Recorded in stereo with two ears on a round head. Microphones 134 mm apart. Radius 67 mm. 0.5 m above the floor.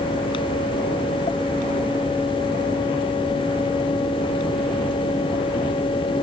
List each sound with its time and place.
Only background noise.